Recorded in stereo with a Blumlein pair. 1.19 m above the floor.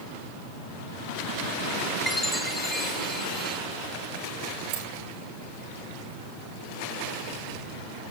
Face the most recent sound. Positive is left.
turn(degrees=-40)